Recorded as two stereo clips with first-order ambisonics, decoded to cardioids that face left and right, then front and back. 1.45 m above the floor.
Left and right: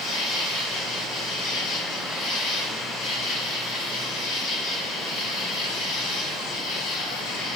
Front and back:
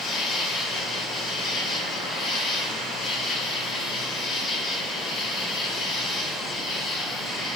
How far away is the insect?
About 1.8 m.